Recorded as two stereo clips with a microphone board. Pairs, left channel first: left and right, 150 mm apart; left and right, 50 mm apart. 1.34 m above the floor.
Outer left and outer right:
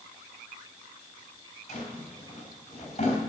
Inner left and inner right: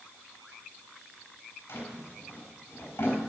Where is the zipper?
No zipper in this recording.